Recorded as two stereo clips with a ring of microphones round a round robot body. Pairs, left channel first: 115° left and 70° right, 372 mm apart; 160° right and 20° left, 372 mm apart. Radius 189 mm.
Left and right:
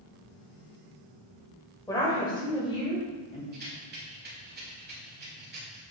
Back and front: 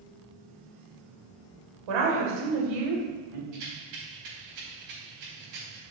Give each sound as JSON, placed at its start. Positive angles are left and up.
{"t": 1.9, "sound": "a woman speaking", "azimuth_deg": 30, "distance_m": 1.9}
{"t": 3.5, "sound": "a rattle", "azimuth_deg": -5, "distance_m": 2.5}